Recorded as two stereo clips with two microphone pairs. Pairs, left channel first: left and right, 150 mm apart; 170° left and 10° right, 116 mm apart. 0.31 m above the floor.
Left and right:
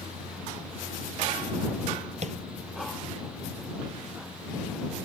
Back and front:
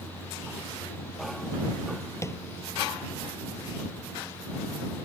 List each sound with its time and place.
2.2 s tapping: 125° right